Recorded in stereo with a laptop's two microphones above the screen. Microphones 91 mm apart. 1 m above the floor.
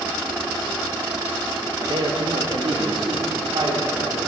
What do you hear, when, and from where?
1.8 s a man speaking: 60° right (ahead or behind), 1.1 m; by 4.2 s 70° right (ahead or behind), 3.5 m